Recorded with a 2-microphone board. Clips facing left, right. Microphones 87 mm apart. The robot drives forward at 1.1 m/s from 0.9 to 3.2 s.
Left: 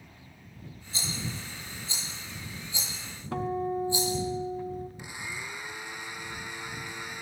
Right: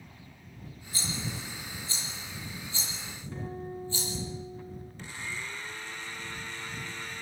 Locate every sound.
0.9 s a rattle: 20° left (ahead or behind), 7.5 m; by 4.2 s 15° left (ahead or behind), 9.5 m
3.3 s a guitar: 75° left (ahead or behind), 1.3 m
5.0 s a blender: 15° left (ahead or behind), 0.5 m